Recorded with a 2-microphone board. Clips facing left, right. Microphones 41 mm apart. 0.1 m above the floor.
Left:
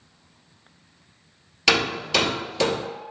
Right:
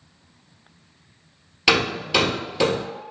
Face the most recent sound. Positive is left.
turn(degrees=-5)  # may be behind; listen again after turning